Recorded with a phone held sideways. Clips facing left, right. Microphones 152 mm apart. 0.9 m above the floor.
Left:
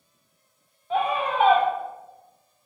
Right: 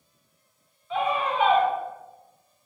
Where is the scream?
40° left (ahead or behind), 1.0 m.